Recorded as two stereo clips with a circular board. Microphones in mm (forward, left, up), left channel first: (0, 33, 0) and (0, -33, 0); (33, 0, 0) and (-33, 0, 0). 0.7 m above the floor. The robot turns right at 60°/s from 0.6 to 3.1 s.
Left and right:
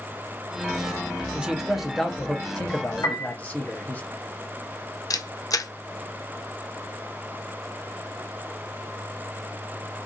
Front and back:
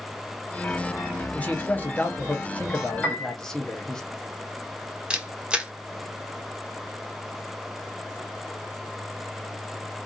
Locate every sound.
1.3 s a man speaking: 35° right, 0.7 m; by 4.0 s 70° left, 0.7 m
3.0 s a piano: 90° left, 1.7 m
5.1 s a camera shutter: 105° left, 0.5 m